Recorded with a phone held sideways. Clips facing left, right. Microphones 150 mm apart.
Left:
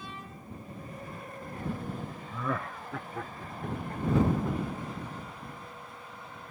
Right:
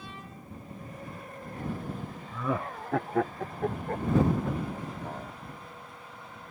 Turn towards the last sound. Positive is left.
turn(degrees=-75)  # may be behind; listen again after turning